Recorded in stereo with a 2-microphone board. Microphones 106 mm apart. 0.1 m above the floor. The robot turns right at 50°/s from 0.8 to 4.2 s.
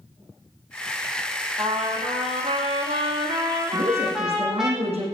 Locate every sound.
1.6 s a trumpet: 135° right, 3 m; by 4.7 s 5° right, 3 m
3.7 s a woman speaking: 70° right (ahead or behind), 5.5 m